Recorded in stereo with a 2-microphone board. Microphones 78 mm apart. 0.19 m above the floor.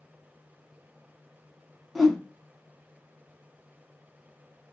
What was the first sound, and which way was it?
A whoosh, centre (ahead or behind).